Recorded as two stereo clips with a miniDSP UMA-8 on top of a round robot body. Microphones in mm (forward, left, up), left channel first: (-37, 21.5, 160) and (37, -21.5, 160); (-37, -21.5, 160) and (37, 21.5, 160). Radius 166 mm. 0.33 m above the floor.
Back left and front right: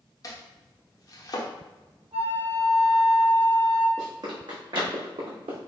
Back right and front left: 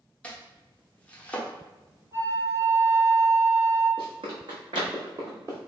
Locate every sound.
0.2 s chopping: 140° left, 1.0 m
2.1 s a flute: 35° right, 1.2 m
4.0 s running footsteps: 15° left, 1.5 m; by 5.6 s 25° right, 1.4 m